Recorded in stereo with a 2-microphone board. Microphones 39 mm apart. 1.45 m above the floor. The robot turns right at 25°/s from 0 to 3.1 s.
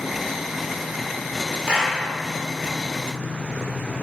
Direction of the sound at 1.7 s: 25° right (ahead or behind).